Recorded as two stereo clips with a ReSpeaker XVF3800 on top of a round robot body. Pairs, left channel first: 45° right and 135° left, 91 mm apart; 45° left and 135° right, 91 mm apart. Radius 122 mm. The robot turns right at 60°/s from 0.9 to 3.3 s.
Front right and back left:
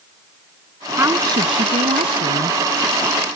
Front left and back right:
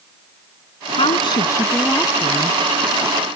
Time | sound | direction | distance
1.0 | a woman speaking | 70° left | ?